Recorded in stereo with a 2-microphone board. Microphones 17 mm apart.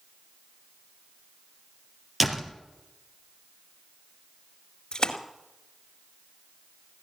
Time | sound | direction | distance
2.2 | a door slam | 10° right (ahead or behind) | 2.5 m
4.9 | a splash | 50° left (ahead or behind) | 2 m